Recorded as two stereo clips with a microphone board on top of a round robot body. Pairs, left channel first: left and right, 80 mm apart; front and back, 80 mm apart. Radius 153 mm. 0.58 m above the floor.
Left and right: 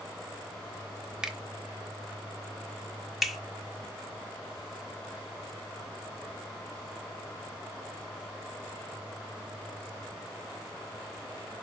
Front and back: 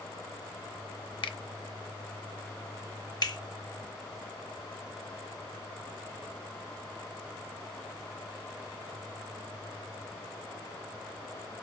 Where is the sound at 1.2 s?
10° right, 0.8 m.